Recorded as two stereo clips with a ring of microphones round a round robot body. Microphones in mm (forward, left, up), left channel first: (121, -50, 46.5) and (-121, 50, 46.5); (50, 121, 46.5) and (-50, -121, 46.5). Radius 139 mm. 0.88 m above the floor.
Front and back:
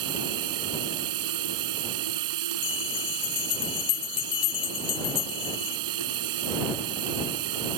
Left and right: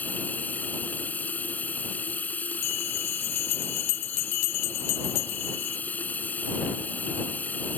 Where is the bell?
45° left.